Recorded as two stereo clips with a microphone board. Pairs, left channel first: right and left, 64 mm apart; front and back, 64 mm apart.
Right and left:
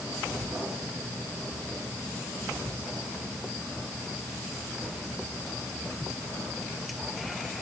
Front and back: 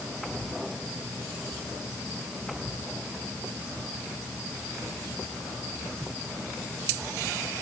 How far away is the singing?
No singing in this recording.